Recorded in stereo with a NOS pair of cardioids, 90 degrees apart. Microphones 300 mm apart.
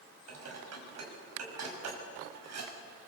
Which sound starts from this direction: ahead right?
Dishes clattering, at 0.3 s.